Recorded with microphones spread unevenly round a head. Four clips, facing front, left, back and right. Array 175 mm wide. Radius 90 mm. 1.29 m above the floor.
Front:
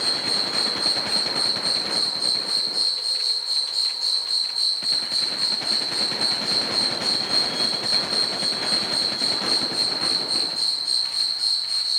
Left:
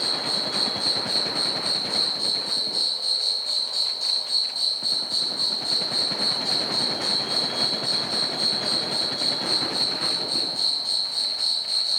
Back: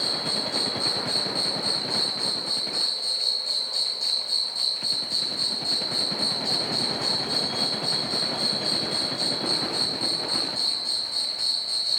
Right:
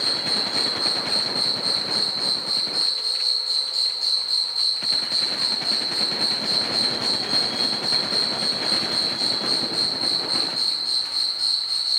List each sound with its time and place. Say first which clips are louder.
0.0 s an insect: even, front 1 dB; 130° left, 0.9 m